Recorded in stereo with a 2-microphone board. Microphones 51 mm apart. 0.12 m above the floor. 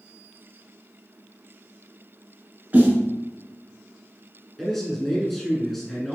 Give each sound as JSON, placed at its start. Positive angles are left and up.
{"t": 2.7, "sound": "a snare drum", "side_deg": -30, "distance_m": 1.2}
{"t": 4.6, "sound": "a man speaking", "side_deg": 5, "distance_m": 1.1}